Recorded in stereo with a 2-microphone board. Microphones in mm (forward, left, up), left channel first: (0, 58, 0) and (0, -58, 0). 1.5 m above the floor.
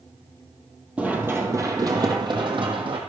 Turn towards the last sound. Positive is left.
turn(degrees=-50)  # may be behind; listen again after turning